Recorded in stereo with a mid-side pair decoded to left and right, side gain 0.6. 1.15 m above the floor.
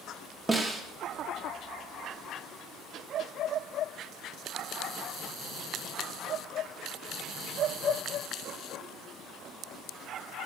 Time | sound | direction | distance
0.5 | a snare drum | 15° right | 1.0 m